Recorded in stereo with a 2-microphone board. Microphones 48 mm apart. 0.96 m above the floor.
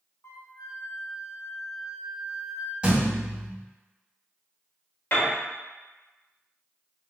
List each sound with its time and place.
0.2 s a flute: 65° left (ahead or behind), 0.7 m
2.8 s a thud: 20° right (ahead or behind), 1.6 m
5.1 s a piano: 45° left (ahead or behind), 1.4 m